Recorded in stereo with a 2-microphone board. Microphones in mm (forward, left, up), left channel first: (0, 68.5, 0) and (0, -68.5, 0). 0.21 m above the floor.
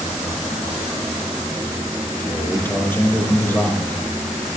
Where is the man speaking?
15° left (ahead or behind), 4.5 m.